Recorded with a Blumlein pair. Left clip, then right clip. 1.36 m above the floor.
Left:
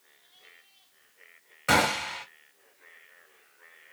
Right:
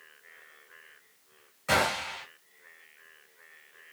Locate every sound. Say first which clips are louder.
1.7 s a gunshot: left 3 dB; 30° left, 1.4 m